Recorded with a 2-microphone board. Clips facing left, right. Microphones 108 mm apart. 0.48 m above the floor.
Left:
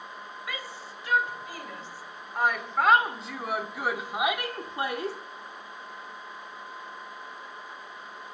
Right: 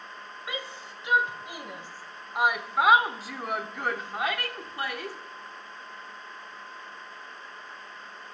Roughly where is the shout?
Right.